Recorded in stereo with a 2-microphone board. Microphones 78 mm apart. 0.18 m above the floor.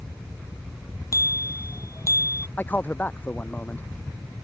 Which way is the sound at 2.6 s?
20° left (ahead or behind).